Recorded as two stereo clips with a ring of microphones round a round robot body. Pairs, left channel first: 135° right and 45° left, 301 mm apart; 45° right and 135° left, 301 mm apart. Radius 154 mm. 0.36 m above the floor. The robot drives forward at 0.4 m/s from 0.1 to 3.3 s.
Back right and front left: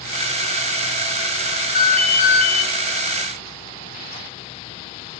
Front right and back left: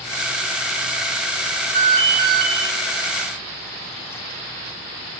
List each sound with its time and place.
1.8 s an alarm: 160° left, 3.5 m